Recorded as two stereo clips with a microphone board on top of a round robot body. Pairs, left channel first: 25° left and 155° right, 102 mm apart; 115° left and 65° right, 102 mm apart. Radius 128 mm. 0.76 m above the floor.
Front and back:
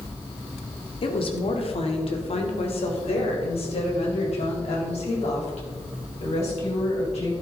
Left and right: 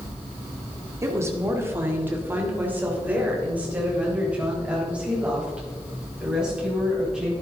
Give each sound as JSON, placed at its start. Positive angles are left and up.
{"t": 1.0, "sound": "a woman speaking", "azimuth_deg": -5, "distance_m": 1.8}